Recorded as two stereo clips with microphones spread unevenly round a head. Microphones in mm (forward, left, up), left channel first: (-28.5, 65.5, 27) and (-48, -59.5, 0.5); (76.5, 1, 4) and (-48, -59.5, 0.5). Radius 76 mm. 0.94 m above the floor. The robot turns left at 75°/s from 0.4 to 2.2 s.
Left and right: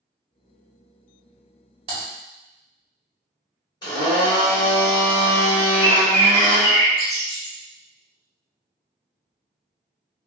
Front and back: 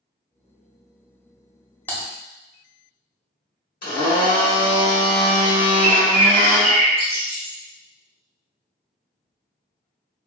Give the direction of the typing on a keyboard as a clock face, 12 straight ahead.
2 o'clock.